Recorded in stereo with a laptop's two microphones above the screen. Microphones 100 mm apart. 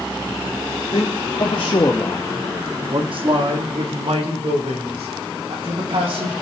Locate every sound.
0.9 s a man speaking: 65° left (ahead or behind), 2 m; by 6.3 s 85° right, 5.5 m